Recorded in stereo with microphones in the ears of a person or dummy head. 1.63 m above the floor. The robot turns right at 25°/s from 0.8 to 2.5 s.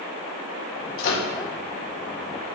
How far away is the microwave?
About 0.5 m.